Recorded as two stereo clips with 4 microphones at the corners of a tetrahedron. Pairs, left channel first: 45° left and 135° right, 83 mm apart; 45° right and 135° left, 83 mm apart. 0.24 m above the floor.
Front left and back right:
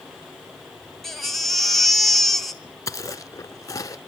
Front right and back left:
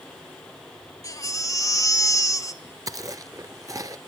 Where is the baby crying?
40° right, 0.8 m.